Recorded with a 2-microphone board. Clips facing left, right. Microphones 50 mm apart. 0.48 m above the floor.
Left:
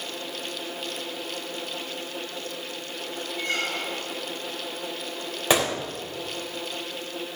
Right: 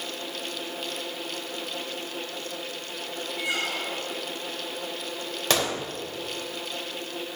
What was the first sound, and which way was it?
A squeak, 15° right (ahead or behind).